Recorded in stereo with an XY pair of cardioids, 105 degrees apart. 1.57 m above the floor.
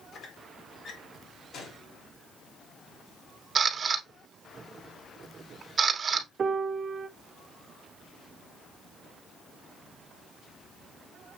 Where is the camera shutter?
40° right, 0.9 m.